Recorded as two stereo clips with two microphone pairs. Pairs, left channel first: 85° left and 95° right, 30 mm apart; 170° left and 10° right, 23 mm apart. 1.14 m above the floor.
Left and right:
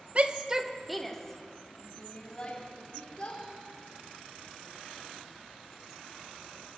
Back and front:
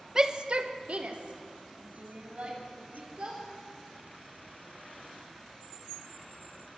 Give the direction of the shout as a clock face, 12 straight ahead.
2 o'clock.